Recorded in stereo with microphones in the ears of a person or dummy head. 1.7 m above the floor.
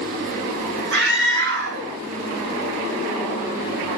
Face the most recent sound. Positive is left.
turn(degrees=-60)  # may be behind; listen again after turning